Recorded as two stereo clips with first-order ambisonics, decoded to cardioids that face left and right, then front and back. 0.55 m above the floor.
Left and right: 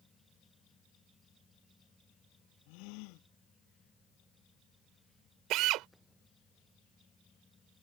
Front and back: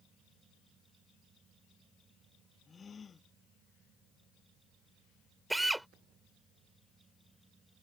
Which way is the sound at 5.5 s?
100° right.